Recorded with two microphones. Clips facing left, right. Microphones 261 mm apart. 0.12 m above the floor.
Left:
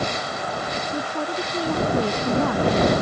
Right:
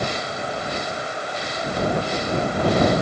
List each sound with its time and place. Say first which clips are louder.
0.9 s a woman speaking: left 4 dB; 85° left; by 2.9 s 80° left